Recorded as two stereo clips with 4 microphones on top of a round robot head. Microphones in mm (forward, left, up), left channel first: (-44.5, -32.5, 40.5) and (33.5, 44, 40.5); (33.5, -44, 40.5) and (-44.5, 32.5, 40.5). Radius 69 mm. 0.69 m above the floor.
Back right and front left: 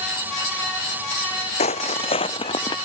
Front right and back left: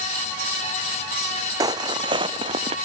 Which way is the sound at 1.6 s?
165° right.